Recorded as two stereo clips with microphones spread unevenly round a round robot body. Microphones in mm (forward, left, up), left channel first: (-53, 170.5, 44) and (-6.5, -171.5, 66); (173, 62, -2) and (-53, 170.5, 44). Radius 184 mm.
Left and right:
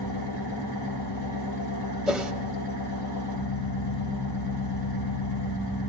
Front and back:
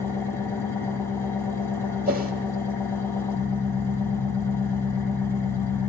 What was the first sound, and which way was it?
An engine running, 55° left.